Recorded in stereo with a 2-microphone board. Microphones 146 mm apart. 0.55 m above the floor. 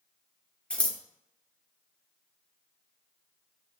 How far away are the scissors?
About 0.6 m.